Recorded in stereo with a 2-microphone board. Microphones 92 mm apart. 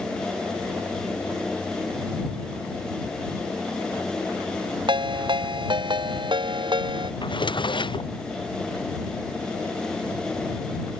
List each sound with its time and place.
4.9 s a ringtone: 60° right (ahead or behind)
7.2 s a drawer: 60° left (ahead or behind)